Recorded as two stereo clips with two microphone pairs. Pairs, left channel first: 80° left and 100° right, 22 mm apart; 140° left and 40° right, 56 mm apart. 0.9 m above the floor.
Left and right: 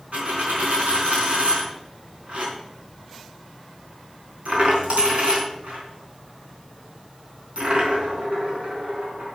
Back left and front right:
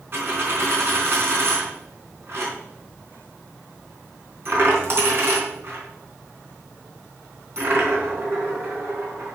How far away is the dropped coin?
About 4 m.